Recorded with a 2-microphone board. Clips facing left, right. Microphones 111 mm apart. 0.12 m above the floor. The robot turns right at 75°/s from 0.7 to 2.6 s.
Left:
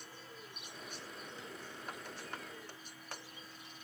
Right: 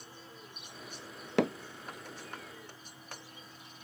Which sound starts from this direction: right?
Hammering, at 1.4 s.